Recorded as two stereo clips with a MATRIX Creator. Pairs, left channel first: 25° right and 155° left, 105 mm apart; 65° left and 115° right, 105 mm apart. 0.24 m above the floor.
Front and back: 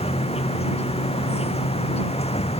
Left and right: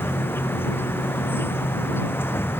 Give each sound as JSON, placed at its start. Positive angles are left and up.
{"t": 0.0, "sound": "an insect", "azimuth_deg": -5}